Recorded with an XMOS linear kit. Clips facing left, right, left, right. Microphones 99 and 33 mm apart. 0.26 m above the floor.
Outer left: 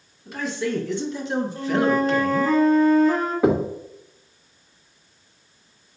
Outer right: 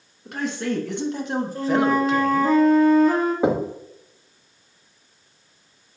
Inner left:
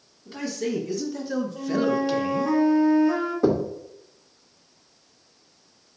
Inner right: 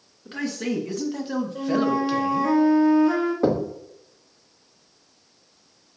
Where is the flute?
75° right (ahead or behind), 2 m.